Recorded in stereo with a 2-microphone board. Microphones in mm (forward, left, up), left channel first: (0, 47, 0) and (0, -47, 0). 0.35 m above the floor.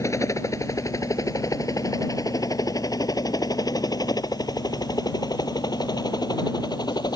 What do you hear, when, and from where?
0.0 s a helicopter: 35° left (ahead or behind); by 7.2 s 50° left (ahead or behind)